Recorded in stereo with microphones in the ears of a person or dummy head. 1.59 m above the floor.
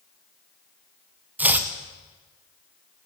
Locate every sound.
1.4 s chopping: 10° right (ahead or behind), 0.9 m